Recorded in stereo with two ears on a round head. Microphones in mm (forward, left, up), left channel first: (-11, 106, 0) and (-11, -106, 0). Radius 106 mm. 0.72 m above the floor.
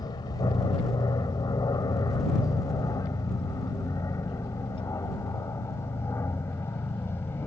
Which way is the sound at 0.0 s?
15° left (ahead or behind).